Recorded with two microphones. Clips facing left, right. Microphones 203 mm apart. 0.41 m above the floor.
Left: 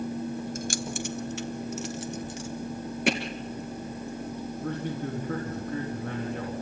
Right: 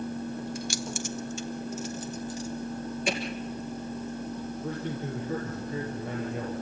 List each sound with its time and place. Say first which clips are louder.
0.6 s keys jangling: left 1 dB; 45° left (ahead or behind), 0.7 m; by 2.5 s 70° left (ahead or behind), 1.7 m
3.1 s hammering: left 5 dB; 70° left (ahead or behind), 2 m
4.6 s a man speaking: left 3 dB; 60° left (ahead or behind), 4.5 m